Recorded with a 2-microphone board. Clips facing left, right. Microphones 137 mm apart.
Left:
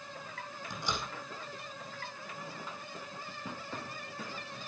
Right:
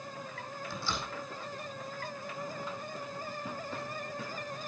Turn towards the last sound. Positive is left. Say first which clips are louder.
# left 1 dB
turn(degrees=20)  # may be behind; listen again after turning